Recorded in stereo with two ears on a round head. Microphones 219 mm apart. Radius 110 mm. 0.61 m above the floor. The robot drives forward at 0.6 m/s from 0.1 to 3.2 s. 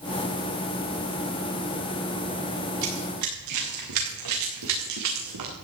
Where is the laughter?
I don't hear laughter.